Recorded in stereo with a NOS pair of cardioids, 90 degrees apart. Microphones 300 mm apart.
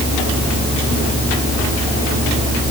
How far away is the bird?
I don't hear a bird.